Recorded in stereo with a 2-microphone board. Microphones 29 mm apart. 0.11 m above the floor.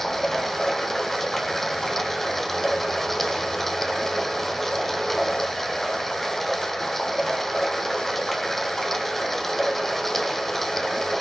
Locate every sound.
0.0 s running water: 10° left (ahead or behind), 0.8 m